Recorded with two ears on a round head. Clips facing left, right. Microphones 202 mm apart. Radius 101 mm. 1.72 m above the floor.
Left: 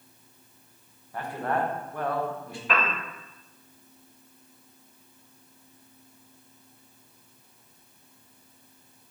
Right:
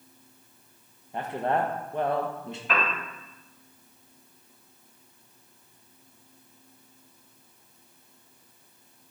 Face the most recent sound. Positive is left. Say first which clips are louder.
# left 1 dB
turn(degrees=65)  # may be behind; listen again after turning